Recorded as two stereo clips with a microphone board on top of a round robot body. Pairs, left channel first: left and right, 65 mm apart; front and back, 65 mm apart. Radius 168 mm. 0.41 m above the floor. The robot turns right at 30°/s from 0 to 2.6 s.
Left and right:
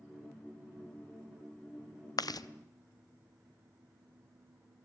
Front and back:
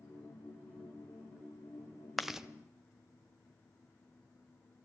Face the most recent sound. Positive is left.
turn(degrees=105)